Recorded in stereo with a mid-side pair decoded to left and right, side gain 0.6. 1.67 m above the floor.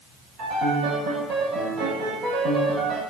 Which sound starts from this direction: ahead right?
A piano, at 0.4 s.